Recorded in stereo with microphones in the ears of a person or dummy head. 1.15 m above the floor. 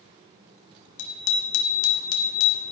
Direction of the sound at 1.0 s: 70° left (ahead or behind).